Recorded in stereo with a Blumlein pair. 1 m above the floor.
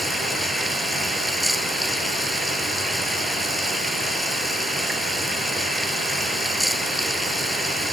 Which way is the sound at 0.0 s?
Straight ahead.